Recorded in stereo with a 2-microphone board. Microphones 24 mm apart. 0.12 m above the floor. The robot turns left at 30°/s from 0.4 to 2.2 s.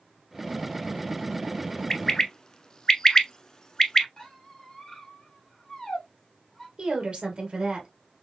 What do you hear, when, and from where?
1.9 s a bird: 25° left (ahead or behind), 0.5 m
4.2 s a squeak: 20° left (ahead or behind), 2 m
6.8 s a woman speaking: 40° right (ahead or behind), 2 m